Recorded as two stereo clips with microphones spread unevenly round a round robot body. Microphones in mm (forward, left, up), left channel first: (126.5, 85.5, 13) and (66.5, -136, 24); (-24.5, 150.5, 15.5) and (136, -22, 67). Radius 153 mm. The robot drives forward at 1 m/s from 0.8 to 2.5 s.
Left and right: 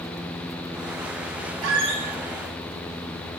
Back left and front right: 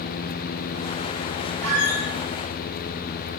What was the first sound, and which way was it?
A squeak, 90° right.